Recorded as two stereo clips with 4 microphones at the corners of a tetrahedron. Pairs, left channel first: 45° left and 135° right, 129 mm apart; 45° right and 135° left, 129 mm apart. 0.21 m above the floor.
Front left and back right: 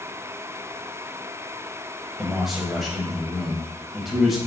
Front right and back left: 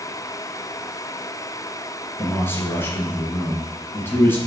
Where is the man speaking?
50° right, 1.0 m.